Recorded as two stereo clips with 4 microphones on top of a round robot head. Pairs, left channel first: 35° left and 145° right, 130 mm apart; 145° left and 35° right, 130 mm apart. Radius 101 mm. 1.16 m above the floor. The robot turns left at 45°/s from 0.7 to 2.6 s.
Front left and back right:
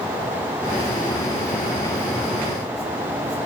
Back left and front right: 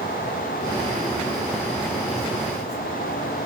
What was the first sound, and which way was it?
Only background noise.